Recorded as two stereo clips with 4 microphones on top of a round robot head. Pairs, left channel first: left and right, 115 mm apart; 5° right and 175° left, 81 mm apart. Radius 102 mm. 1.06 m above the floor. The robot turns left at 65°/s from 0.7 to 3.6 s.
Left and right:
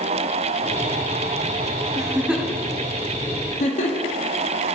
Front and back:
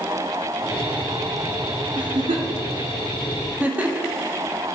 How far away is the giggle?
About 1.5 m.